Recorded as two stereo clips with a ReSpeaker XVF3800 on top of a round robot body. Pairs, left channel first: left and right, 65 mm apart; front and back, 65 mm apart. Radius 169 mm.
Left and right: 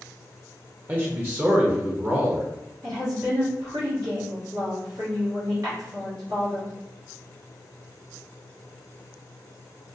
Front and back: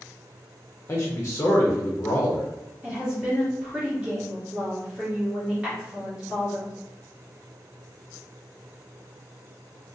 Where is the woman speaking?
110° right, 1.3 m.